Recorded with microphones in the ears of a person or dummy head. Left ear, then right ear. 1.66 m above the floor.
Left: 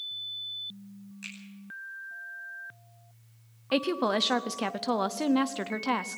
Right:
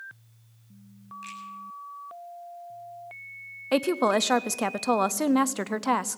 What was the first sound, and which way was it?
A finger snap, 20° left (ahead or behind).